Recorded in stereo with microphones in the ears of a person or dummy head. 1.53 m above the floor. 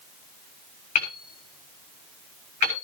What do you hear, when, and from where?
0.9 s hammering: 40° left (ahead or behind), 6.5 m